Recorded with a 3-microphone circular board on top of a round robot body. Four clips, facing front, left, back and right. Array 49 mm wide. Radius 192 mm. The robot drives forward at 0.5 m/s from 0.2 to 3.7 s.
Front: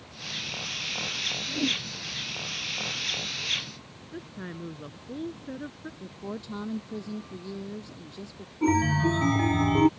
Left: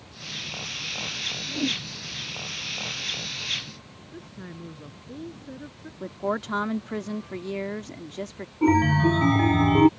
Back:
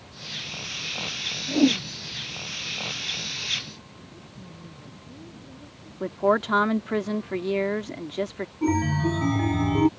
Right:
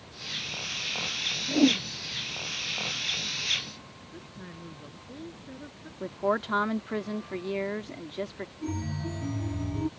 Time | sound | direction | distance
1.5 | a whoosh | 135° right | ?
4.1 | a woman speaking | 10° left | ?
6.0 | a woman speaking | 170° right | ?
8.6 | a chime | 75° left | ?